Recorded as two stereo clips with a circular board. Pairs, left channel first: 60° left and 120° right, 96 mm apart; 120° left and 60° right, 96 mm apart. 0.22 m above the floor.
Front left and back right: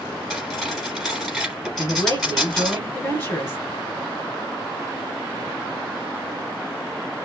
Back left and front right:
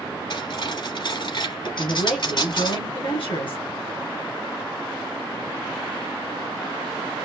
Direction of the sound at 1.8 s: 125° left.